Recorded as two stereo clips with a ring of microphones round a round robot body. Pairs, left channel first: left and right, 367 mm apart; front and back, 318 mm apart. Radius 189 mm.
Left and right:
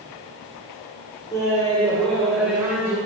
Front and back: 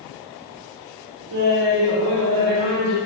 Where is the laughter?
170° left, 4.5 m; by 3.0 s 175° right, 5.5 m.